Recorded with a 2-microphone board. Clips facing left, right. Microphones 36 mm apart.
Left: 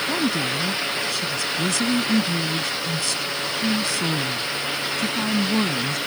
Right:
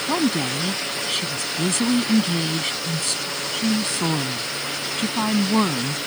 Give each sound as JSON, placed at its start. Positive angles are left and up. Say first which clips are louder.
{"t": 0.1, "sound": "a woman speaking", "louder": "right 4 dB", "side_deg": -50}